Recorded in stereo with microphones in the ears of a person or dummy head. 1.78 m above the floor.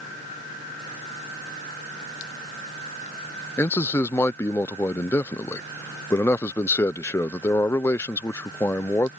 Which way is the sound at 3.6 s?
15° left (ahead or behind).